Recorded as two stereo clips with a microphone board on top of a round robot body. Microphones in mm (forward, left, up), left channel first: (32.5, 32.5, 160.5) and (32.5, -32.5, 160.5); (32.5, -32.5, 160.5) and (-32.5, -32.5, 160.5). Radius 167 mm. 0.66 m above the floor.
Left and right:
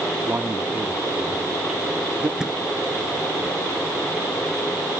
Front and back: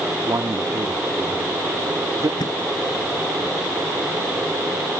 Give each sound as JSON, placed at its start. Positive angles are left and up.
{"t": 0.3, "sound": "a man speaking", "azimuth_deg": -150}
{"t": 2.4, "sound": "a thud", "azimuth_deg": -10}